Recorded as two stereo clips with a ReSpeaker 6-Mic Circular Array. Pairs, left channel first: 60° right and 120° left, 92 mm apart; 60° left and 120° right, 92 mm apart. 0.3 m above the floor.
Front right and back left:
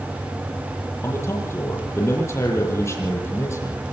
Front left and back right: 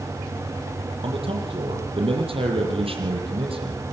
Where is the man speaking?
120° right, 8.5 m.